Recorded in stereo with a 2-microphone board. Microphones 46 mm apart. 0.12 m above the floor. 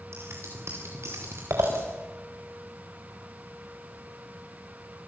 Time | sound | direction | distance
0.1 | scissors | 65° right (ahead or behind) | 5.5 m